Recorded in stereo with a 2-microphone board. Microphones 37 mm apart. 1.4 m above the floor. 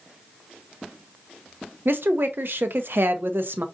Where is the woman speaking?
70° right (ahead or behind), 0.7 m.